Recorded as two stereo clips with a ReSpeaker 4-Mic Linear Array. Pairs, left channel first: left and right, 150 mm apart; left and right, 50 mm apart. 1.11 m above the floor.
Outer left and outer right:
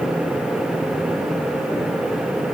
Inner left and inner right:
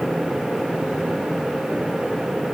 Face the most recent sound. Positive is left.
No sound to turn to.